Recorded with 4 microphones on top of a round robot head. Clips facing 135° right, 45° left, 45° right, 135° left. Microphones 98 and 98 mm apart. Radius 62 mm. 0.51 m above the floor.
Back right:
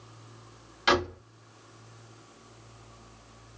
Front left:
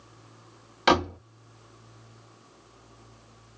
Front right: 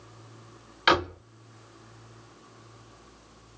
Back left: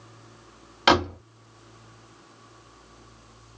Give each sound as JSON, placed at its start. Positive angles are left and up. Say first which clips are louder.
{"t": 0.9, "sound": "a door slam", "louder": "front left 3 dB, back left 3 dB", "azimuth_deg": 80, "distance_m": 2.0}